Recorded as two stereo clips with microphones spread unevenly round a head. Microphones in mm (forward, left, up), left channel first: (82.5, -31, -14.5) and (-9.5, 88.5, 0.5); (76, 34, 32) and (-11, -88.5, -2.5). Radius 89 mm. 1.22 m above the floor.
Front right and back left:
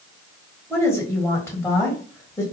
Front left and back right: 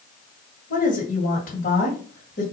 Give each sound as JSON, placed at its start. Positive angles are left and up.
{"t": 0.7, "sound": "a woman speaking", "azimuth_deg": 20, "distance_m": 1.7}